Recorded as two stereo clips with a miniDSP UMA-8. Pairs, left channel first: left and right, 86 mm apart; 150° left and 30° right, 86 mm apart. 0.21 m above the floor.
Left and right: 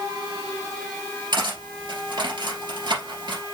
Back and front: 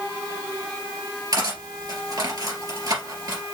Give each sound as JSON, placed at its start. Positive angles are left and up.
{"t": 1.3, "sound": "cutlery clinking", "azimuth_deg": -65, "distance_m": 2.5}